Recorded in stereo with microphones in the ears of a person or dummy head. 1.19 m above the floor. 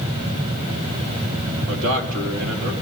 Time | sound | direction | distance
1.7 | a man speaking | 70° right (ahead or behind) | 2.5 m